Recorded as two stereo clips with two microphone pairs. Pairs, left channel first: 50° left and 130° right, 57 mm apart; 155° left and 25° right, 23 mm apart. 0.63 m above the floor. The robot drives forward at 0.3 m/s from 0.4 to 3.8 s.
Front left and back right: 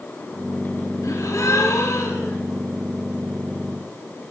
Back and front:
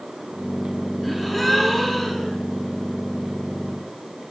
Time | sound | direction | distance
1.0 | a gasp | 65° left | 1.5 m